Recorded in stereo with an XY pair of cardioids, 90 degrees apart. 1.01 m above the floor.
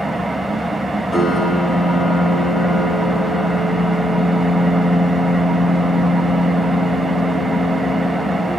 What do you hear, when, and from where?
0.0 s an engine running: straight ahead, 3 m
1.1 s a piano: 40° left, 9 m